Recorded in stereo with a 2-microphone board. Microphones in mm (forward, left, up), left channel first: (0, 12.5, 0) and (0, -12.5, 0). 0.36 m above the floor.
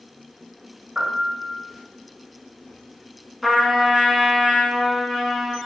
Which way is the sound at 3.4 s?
Centre (ahead or behind).